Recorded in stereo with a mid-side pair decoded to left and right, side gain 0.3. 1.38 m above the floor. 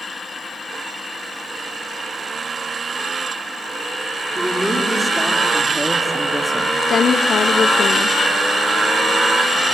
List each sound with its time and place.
4.3 s a man speaking: 15° right, 3.5 m; by 6.7 s 5° right, 1.3 m
6.8 s a woman speaking: 70° left, 0.7 m